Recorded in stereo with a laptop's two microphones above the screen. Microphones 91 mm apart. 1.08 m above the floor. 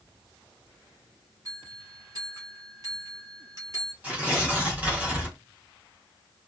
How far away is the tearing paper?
About 0.7 m.